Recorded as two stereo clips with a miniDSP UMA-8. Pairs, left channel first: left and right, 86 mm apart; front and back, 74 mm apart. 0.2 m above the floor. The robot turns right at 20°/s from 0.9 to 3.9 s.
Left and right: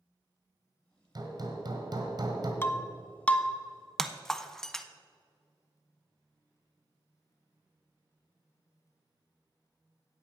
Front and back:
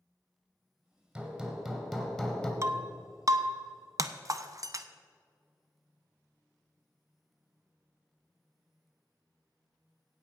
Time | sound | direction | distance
1.1 | hammering | 100° right | 1.6 m
2.6 | breaking glass | 150° left | 0.5 m